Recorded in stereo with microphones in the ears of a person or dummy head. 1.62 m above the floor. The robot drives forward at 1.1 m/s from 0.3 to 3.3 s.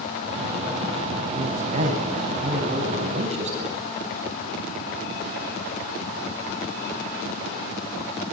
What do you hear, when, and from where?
1.3 s a man speaking: 40° right (ahead or behind), 10 m; by 3.8 s 35° right (ahead or behind), 11.5 m